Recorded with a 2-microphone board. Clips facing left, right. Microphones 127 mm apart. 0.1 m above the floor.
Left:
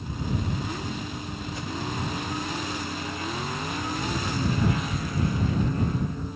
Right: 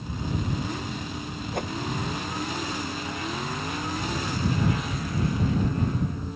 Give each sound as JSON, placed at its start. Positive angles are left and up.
{"t": 1.5, "sound": "a whoosh", "side_deg": -60}